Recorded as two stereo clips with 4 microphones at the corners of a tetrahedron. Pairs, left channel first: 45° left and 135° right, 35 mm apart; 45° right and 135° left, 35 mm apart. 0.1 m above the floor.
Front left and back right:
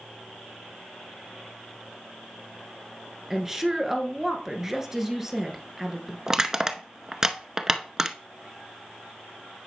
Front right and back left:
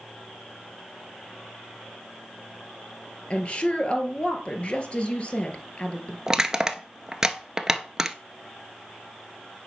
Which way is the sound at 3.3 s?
70° right.